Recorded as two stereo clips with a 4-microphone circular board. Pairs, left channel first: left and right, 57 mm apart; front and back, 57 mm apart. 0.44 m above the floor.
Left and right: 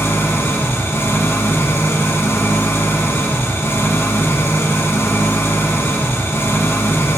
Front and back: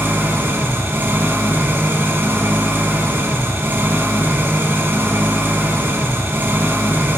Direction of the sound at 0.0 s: 130° left.